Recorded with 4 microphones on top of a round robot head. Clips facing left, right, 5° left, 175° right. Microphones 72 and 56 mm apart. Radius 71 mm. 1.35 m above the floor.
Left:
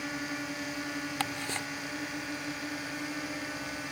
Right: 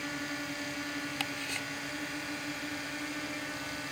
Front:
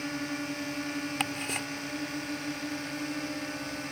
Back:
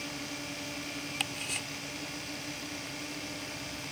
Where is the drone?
10° left.